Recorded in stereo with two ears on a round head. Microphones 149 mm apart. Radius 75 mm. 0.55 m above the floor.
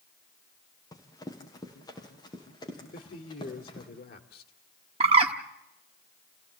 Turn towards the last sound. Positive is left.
turn(degrees=-35)  # may be behind; listen again after turning